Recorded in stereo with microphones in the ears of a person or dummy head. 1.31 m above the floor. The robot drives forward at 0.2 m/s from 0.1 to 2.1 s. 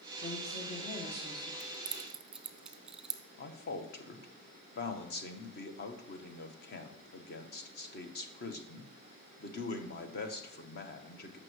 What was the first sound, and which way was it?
A woman speaking, 25° left (ahead or behind).